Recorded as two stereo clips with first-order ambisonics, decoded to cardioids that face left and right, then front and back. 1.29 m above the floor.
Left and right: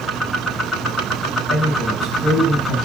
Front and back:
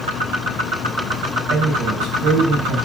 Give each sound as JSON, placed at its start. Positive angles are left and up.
{"t": 1.5, "sound": "a man speaking", "azimuth_deg": 140, "distance_m": 5.0}